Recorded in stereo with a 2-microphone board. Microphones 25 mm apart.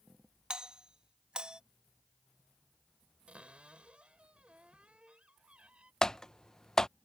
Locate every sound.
0.5 s a doorbell: 35° right (ahead or behind)
3.3 s a cupboard door: 45° right (ahead or behind)
6.0 s typing on a keyboard: 25° left (ahead or behind)